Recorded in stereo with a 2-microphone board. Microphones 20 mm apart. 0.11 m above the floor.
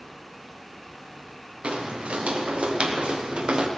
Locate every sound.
1.6 s footsteps: 80° right, 3.5 m; by 3.7 s 45° right (ahead or behind), 3 m